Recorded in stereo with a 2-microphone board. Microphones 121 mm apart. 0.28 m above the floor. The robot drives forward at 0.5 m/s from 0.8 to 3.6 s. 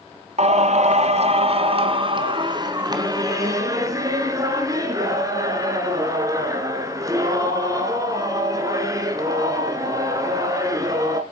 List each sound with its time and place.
0.4 s singing: 65° right (ahead or behind), 0.9 m; by 11.2 s 30° right (ahead or behind), 1.7 m